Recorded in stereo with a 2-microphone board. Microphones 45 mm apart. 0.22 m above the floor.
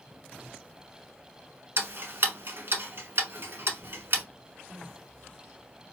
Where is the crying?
15° left (ahead or behind), 2 m.